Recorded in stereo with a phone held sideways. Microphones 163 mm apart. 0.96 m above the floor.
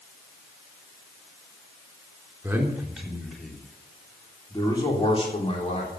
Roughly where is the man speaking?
Centre.